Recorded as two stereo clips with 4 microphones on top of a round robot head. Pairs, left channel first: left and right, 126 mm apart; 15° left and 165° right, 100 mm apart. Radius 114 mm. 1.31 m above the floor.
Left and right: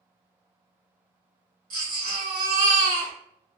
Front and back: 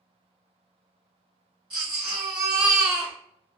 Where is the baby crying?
105° right, 1.3 m.